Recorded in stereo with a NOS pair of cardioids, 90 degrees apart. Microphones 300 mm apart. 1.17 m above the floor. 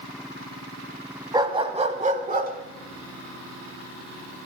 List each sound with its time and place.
1.3 s a dog barking: 15° right, 2.5 m; by 4.5 s 45° right, 5.5 m